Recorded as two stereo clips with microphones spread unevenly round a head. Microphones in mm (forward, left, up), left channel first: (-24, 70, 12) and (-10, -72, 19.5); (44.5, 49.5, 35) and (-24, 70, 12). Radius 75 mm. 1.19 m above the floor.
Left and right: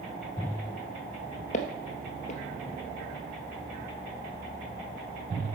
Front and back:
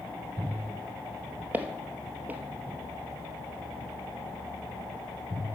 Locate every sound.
1.5 s footsteps: 85° left, 1.5 m